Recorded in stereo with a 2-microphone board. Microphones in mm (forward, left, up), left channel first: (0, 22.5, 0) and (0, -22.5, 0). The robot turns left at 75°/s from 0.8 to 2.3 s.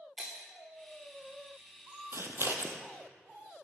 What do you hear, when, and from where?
0.2 s breaking glass: 25° right (ahead or behind), 2.5 m
2.1 s scissors: 70° right (ahead or behind), 1.0 m; by 2.8 s 60° right (ahead or behind), 1.0 m